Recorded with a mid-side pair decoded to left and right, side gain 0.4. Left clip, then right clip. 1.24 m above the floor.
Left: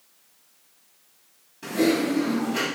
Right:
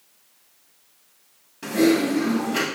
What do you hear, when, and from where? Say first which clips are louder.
1.6 s typing on a keyboard: right 3 dB; 45° right, 2 m